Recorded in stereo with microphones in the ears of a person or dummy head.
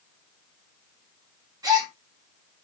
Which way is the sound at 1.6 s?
25° right (ahead or behind).